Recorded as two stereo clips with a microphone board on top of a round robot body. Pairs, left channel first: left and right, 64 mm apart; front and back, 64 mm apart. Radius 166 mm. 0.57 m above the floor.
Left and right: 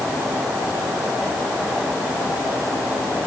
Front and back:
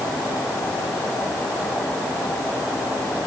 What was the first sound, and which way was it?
Only background noise.